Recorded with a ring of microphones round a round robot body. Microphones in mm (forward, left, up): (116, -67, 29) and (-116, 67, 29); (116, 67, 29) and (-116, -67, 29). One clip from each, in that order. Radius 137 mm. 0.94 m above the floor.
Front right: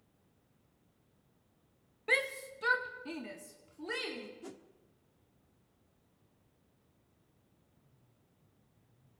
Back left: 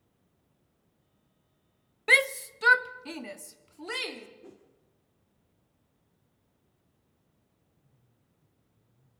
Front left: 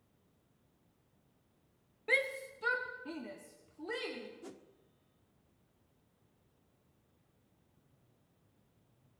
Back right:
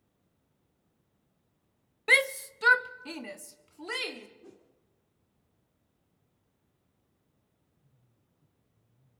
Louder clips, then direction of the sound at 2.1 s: Back left 9 dB, back right 9 dB; 165° right.